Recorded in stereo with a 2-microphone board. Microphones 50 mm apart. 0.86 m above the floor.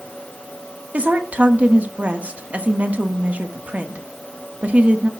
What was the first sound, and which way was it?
A woman speaking, 30° right (ahead or behind).